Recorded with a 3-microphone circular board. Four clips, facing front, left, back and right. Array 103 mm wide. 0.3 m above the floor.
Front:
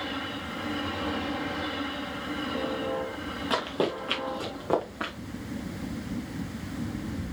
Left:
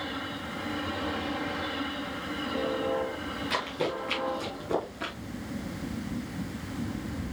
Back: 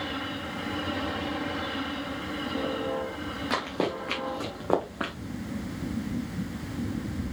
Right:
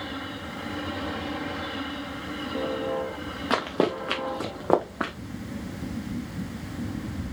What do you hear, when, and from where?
3.5 s running footsteps: 90° right, 2 m; by 5.1 s 110° right, 1.7 m